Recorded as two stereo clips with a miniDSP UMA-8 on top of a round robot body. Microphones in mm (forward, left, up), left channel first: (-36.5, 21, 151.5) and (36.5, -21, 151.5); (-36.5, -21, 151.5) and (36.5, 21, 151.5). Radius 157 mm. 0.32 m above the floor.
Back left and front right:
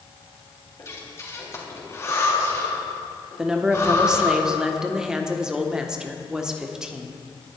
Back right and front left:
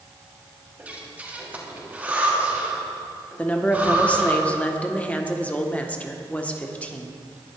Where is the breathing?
100° left, 3.5 m.